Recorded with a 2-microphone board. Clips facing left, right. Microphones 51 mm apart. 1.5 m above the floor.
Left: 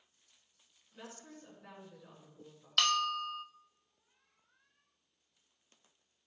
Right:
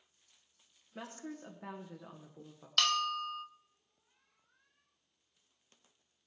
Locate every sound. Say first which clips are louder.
0.9 s a woman speaking: right 6 dB; 75° right (ahead or behind), 1.7 m
2.8 s a bell: left 1 dB; centre (ahead or behind), 0.9 m